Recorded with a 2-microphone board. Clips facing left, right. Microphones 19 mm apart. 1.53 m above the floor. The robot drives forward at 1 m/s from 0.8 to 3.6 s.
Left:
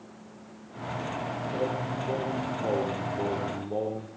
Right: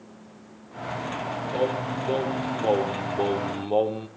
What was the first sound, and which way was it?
Singing, 35° right (ahead or behind).